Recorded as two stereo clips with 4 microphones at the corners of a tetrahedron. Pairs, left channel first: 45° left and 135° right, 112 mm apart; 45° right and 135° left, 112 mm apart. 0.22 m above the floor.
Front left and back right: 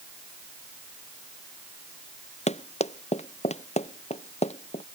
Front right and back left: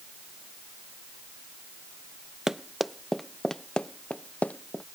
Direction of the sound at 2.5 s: 50° left.